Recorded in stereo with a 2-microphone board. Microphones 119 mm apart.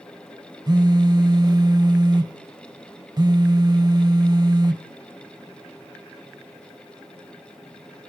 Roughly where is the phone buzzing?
Right.